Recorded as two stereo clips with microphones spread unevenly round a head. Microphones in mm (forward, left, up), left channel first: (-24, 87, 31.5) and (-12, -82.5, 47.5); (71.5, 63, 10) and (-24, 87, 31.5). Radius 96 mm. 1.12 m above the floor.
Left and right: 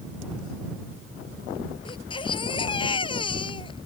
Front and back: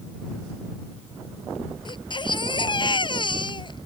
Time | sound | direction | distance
1.9 | a baby crying | 30° left | ?